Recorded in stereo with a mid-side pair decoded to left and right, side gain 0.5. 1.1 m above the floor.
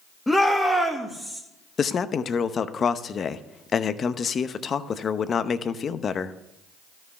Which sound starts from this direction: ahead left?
A man speaking, at 1.8 s.